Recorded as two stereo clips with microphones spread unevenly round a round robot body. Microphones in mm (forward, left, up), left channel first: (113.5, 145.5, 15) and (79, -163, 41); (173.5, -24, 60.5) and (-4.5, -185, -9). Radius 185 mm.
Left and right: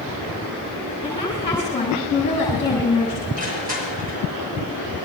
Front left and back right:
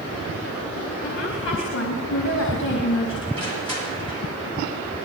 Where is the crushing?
35° right, 8 m.